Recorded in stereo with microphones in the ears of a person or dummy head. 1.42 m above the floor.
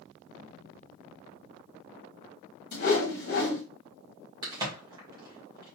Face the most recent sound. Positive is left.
turn(degrees=-20)  # may be behind; listen again after turning